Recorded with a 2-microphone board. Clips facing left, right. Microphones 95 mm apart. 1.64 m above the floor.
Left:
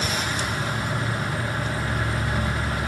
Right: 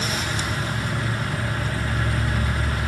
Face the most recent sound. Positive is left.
turn(degrees=25)  # may be behind; listen again after turning